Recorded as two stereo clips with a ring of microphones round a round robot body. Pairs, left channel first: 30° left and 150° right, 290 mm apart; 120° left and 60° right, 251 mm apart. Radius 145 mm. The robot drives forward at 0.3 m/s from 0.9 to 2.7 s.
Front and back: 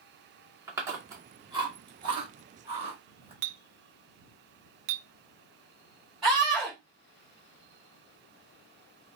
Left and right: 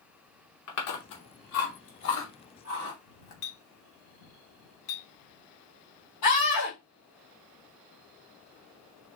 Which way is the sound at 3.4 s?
170° right.